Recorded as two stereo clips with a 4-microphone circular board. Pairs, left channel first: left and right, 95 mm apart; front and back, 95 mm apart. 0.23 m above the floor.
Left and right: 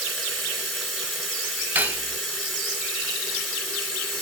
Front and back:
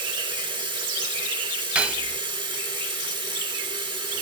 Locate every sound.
0.0 s running water: straight behind, 1.7 m
1.8 s cutlery clinking: 120° right, 0.6 m